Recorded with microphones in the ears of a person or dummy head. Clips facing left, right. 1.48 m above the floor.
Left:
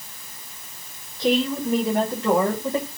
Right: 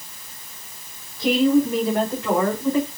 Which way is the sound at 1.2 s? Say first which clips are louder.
Right 5 dB; centre (ahead or behind).